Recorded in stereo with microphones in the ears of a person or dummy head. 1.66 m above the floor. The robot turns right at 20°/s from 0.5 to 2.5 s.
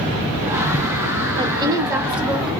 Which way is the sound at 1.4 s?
25° right (ahead or behind).